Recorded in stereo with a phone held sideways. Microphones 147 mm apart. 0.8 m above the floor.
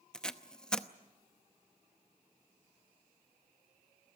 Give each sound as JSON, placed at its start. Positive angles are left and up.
{"t": 0.1, "sound": "tape being pulled", "side_deg": 5, "distance_m": 0.7}